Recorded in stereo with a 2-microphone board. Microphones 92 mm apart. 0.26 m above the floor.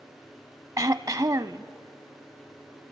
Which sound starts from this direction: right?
Throat clearing, at 0.8 s.